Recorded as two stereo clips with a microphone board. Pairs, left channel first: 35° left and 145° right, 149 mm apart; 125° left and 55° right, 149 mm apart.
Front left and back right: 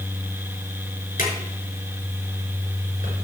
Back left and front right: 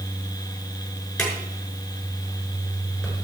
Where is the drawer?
40° left, 5.5 m.